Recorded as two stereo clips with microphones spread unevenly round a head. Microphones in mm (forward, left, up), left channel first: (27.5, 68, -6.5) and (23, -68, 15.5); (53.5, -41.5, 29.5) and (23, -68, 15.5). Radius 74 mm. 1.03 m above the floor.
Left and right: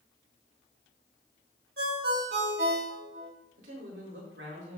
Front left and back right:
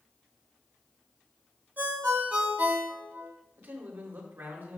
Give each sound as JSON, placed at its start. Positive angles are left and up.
{"t": 1.8, "sound": "a ringtone", "azimuth_deg": -95, "distance_m": 3.0}
{"t": 3.6, "sound": "a man speaking", "azimuth_deg": -105, "distance_m": 3.5}